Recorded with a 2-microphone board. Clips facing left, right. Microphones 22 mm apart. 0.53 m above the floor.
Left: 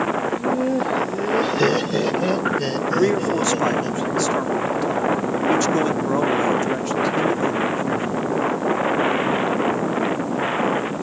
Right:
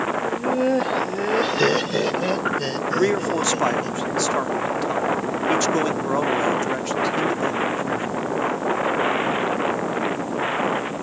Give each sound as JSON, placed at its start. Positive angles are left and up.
{"t": 0.2, "sound": "laughter", "side_deg": -45}
{"t": 3.0, "sound": "a man speaking", "side_deg": -10}